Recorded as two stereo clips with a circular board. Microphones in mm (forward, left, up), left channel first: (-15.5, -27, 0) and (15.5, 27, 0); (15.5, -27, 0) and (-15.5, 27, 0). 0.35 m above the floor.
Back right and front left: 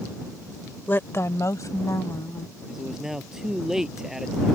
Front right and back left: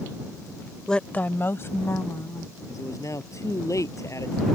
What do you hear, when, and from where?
0.9 s a woman speaking: 130° right; by 2.5 s 95° right
2.7 s a man speaking: 25° right